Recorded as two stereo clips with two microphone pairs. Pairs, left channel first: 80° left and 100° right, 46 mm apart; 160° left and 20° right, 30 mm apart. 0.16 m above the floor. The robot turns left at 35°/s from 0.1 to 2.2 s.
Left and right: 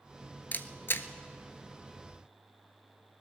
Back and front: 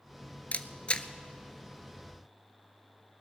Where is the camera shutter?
125° left, 0.6 m; by 1.1 s 105° left, 0.6 m.